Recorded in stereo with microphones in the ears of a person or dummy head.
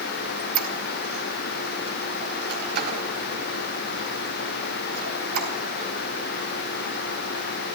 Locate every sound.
0.4 s a squeak: 55° right (ahead or behind), 3.5 m